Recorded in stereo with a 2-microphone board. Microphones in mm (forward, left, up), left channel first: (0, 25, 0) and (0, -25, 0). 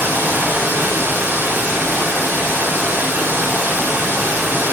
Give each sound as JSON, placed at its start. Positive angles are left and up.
{"t": 0.0, "sound": "running water", "side_deg": -45, "distance_m": 0.8}